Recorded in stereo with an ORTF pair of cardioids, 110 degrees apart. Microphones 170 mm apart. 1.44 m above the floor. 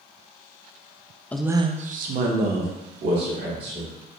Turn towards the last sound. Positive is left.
turn(degrees=-75)